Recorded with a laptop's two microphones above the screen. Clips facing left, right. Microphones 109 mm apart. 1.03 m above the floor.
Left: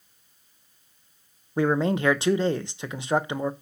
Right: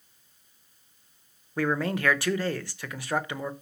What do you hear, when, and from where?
1.6 s a man speaking: 20° left (ahead or behind), 0.7 m